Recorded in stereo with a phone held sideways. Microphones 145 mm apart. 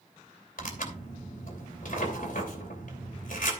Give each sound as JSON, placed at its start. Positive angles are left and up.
{"t": 0.6, "sound": "tearing paper", "side_deg": 75, "distance_m": 2.5}